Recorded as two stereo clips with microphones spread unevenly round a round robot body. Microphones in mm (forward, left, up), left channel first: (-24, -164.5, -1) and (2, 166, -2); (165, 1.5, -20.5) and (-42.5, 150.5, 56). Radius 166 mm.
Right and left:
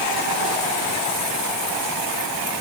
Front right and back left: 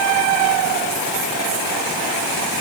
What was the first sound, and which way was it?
Only background noise.